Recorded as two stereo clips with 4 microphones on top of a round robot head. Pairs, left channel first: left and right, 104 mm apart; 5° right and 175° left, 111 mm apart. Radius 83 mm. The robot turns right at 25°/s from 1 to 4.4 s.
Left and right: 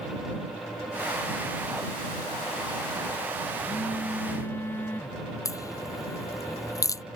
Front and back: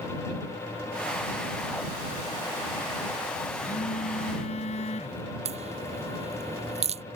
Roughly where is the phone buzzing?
Ahead.